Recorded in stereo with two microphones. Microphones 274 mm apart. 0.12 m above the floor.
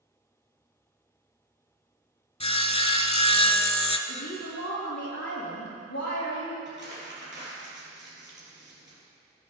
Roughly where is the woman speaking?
Left.